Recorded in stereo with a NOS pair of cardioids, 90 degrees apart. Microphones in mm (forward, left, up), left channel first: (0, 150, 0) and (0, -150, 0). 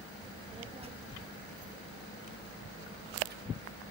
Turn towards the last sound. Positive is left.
turn(degrees=-35)